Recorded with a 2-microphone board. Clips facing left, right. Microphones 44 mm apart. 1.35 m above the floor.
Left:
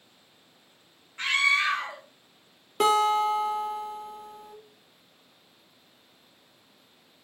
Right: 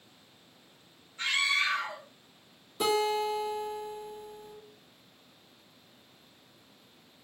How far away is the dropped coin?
I don't hear a dropped coin.